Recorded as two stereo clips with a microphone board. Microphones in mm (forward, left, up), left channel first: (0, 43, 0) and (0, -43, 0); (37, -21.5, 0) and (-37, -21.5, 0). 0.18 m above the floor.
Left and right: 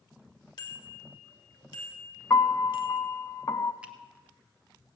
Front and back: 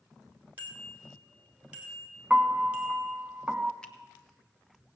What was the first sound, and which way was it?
A bicycle bell, 115° left.